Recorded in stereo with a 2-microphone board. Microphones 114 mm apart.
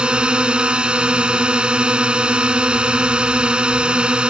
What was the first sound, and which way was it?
A drone, 10° right (ahead or behind).